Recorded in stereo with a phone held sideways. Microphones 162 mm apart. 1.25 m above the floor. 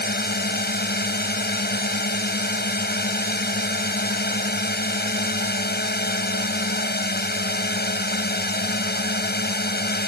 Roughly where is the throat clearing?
I don't hear throat clearing.